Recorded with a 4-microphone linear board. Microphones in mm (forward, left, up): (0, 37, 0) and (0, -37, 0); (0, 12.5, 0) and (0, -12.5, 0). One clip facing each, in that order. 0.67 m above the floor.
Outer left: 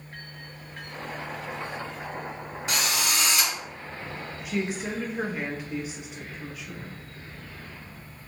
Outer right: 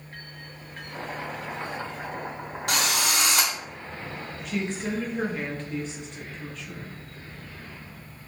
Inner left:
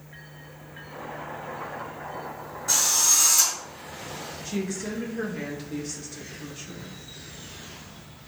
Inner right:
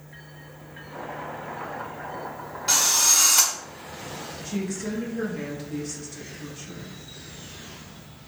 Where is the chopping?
20° right (ahead or behind), 1.2 m.